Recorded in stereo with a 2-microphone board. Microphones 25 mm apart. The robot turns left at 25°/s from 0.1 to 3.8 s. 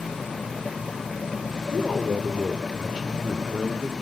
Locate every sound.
1.7 s a man speaking: 20° left, 0.9 m; by 3.9 s 30° right, 0.9 m